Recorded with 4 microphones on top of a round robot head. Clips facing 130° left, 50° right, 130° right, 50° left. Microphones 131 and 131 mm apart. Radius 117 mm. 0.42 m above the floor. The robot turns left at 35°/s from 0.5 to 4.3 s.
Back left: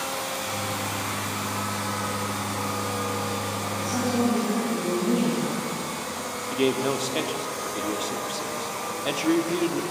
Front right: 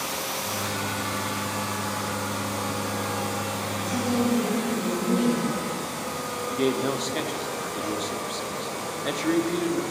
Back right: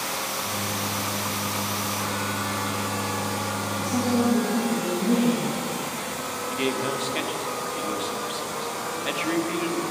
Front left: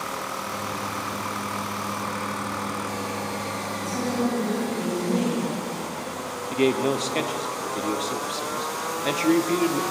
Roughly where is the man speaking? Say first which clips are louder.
Back left 1 dB, front left 6 dB; ahead left.